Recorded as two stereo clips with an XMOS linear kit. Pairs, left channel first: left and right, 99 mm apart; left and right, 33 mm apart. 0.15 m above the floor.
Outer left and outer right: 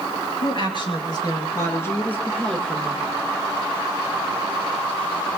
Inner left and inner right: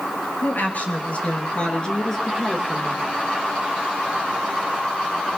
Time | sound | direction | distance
0.4 | a woman speaking | 60° left (ahead or behind) | 3 m